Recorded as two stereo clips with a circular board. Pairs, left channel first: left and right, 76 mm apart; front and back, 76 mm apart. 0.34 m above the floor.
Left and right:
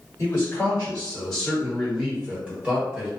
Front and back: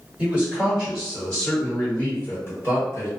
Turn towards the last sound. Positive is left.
turn(degrees=-35)